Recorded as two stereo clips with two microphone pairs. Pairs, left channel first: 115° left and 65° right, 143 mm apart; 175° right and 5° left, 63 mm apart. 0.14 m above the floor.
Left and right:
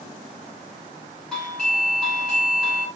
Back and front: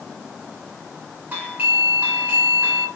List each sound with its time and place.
1.3 s a doorbell: 35° left, 1.6 m